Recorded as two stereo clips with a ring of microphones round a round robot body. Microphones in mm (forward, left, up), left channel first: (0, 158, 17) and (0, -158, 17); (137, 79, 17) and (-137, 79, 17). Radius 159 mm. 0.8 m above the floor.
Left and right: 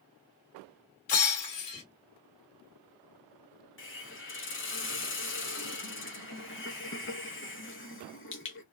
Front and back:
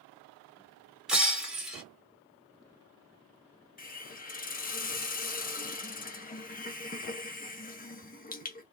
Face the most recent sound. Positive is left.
turn(degrees=50)